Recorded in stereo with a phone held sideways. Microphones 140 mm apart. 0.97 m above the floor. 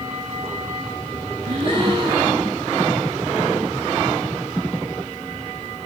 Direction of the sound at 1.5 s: 40° right (ahead or behind).